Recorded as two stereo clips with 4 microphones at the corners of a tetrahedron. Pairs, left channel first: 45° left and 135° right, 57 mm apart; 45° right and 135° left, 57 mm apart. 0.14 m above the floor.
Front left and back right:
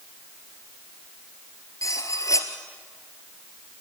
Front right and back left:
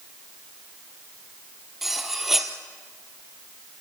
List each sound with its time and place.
1.8 s cutlery clinking: 50° left, 2 m